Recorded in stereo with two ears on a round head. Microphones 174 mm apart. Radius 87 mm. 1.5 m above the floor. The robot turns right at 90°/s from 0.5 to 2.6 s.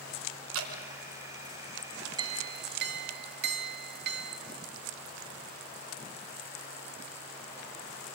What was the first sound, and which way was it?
Dripping, 85° right.